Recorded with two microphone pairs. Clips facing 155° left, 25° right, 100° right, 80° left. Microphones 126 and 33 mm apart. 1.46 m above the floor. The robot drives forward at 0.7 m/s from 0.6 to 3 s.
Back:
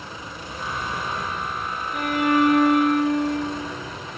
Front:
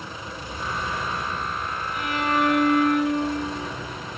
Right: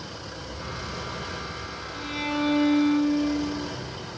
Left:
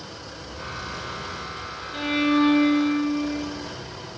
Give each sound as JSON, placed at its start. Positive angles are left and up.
{"t": 1.9, "sound": "a violin", "azimuth_deg": 120, "distance_m": 3.5}